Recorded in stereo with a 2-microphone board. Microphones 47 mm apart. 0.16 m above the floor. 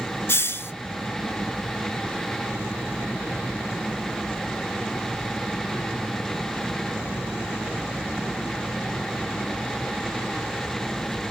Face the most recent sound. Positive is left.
turn(degrees=65)  # may be behind; listen again after turning